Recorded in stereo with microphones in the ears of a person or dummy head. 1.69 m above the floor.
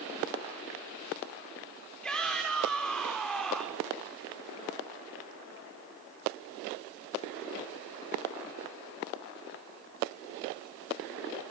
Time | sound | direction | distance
2.0 | a shout | centre (ahead or behind) | 5 m